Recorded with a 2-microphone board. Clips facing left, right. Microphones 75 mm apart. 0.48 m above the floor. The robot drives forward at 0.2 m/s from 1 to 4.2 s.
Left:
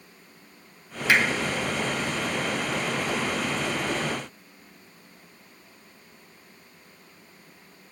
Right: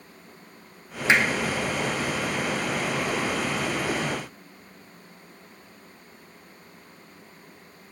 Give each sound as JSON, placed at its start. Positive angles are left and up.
{"t": 1.1, "sound": "hammering", "side_deg": -25, "distance_m": 1.6}